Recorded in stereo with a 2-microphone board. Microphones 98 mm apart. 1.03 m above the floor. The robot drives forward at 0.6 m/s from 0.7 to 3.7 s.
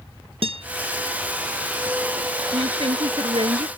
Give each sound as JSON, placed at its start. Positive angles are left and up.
{"t": 0.4, "sound": "a guitar", "side_deg": -80}
{"t": 2.5, "sound": "a woman speaking", "side_deg": -70}